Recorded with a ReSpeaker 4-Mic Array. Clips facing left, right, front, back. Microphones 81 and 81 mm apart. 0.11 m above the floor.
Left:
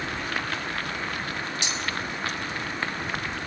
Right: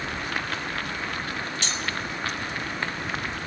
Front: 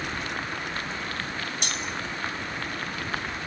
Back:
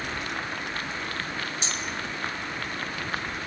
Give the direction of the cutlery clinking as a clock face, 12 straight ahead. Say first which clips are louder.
Even, even; 11 o'clock.